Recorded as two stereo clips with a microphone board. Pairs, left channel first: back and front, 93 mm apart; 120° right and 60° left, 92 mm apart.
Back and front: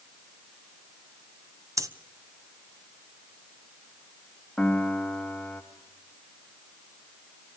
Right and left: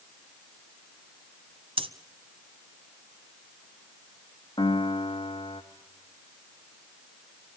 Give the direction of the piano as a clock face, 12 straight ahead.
3 o'clock.